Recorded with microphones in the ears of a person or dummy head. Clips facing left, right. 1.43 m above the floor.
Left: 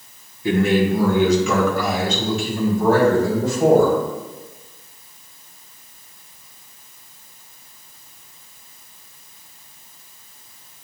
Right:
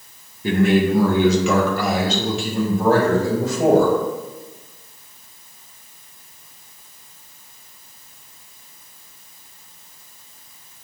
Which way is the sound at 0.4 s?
45° right (ahead or behind).